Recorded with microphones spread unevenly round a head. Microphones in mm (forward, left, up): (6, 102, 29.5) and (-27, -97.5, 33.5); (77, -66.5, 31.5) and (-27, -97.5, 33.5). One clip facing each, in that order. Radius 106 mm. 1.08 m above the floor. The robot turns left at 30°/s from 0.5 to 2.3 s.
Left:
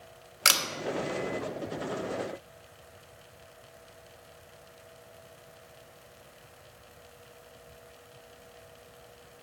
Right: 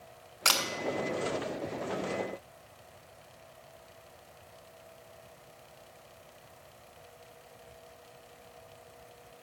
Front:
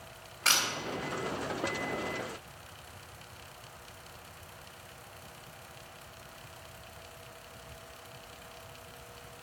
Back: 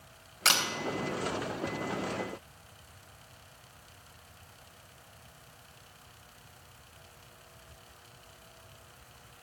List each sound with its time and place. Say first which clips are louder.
0.5 s a camera shutter: even, back 2 dB; 150° left, 1.0 m; by 0.6 s 145° left, 1.0 m